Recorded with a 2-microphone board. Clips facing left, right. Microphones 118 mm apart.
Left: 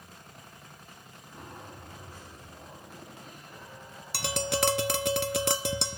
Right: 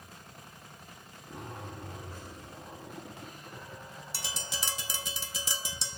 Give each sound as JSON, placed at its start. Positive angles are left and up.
{"t": 1.3, "sound": "a zipper", "side_deg": -85, "distance_m": 7.0}
{"t": 4.1, "sound": "tapping", "side_deg": 60, "distance_m": 0.6}